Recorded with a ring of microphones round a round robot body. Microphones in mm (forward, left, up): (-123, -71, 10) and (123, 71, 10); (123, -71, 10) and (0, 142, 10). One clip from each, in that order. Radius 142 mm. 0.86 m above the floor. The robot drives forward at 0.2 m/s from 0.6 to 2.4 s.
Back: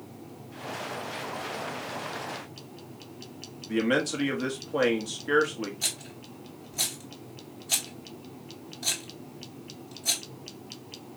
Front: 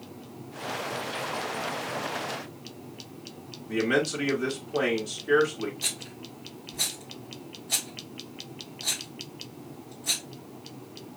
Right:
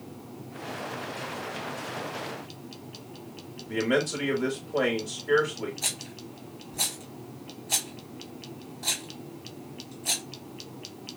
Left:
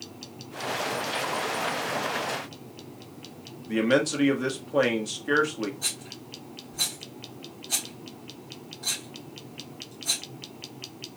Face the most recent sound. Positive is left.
turn(degrees=-160)